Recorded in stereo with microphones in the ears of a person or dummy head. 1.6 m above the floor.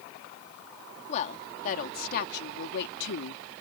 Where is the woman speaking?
35° left (ahead or behind); by 3.4 s 65° left (ahead or behind).